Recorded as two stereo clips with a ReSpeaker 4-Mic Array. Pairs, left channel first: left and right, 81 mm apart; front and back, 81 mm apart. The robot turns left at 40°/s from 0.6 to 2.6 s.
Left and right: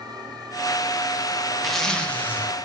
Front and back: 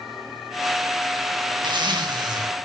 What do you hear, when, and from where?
1.6 s a zipper: straight behind, 1.0 m; by 2.5 s 150° left, 1.0 m